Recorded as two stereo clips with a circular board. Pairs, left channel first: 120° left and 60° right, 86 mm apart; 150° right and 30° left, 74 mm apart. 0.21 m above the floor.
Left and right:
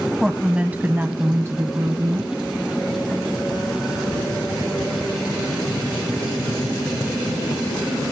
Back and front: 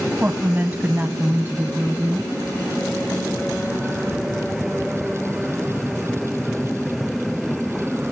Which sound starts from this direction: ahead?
A woman speaking, at 0.2 s.